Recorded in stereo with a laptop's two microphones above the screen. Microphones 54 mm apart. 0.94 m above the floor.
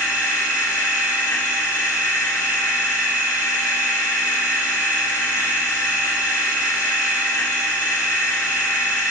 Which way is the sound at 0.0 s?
70° left (ahead or behind).